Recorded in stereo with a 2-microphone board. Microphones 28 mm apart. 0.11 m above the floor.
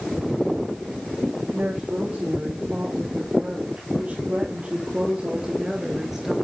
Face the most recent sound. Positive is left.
turn(degrees=-10)  # may be behind; listen again after turning